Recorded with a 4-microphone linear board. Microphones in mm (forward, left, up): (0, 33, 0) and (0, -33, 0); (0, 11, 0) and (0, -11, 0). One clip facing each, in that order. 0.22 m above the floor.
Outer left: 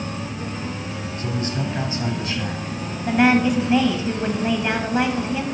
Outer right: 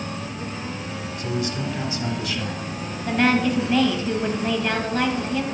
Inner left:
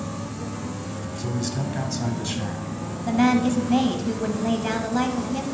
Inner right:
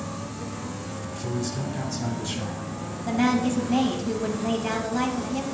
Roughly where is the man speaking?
Left.